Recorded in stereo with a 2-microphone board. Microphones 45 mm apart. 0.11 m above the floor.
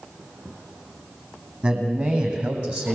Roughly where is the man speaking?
Right.